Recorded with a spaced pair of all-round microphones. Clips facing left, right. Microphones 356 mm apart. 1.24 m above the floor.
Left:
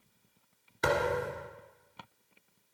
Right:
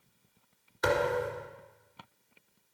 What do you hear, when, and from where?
0.8 s a thud: 40° left (ahead or behind), 2.0 m